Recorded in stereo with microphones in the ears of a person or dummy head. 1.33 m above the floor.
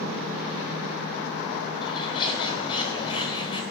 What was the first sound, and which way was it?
A bird, 25° left (ahead or behind).